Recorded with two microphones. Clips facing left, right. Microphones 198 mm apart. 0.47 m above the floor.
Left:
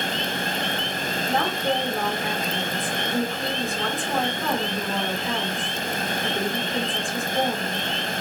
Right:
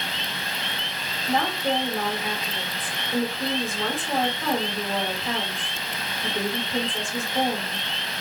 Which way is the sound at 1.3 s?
Centre (ahead or behind).